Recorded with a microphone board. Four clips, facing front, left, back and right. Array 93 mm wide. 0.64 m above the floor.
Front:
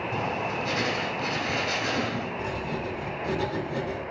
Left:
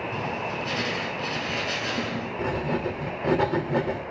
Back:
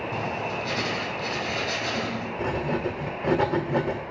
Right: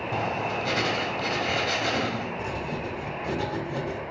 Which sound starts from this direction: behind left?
Writing, at 2.4 s.